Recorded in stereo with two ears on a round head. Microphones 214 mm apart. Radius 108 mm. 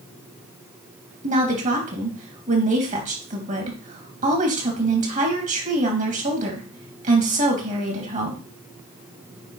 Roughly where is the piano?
I don't hear a piano.